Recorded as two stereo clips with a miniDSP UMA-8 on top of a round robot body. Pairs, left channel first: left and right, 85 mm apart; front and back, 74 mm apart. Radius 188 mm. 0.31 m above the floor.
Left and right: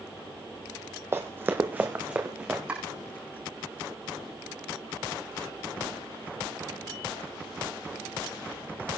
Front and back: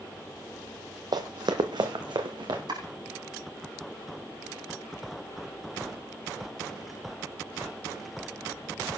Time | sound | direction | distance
1.1 | running footsteps | 150° right | 0.7 m
2.7 | chopping | 165° right | 8.5 m